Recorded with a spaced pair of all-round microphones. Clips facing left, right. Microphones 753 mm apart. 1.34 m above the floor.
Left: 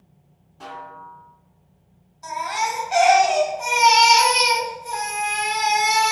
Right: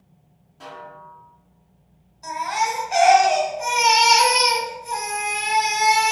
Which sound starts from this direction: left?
A baby crying, at 2.2 s.